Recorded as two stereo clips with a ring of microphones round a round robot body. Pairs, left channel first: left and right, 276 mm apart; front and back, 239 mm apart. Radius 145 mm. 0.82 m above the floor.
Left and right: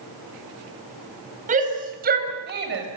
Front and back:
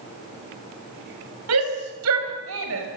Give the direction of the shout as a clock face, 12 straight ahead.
5 o'clock.